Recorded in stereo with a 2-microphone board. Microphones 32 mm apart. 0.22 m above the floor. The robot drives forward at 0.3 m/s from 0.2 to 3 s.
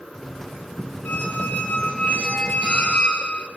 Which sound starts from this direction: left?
A squeak, at 1.1 s.